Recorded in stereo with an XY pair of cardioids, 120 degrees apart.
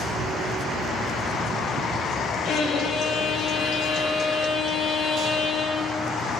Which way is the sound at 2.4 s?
65° left.